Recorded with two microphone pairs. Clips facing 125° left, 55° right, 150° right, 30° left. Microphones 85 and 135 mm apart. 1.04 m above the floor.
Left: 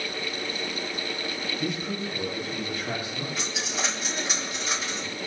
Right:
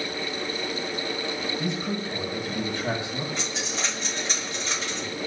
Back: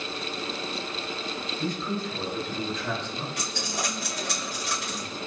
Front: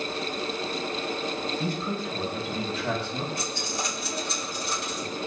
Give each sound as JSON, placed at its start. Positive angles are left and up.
{"t": 1.6, "sound": "a man speaking", "azimuth_deg": -55, "distance_m": 10.0}
{"t": 3.4, "sound": "a dropped coin", "azimuth_deg": -155, "distance_m": 4.0}